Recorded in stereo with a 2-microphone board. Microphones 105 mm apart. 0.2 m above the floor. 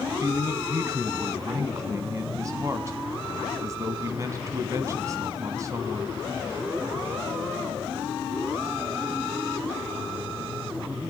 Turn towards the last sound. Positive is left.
turn(degrees=-30)  # may be behind; listen again after turning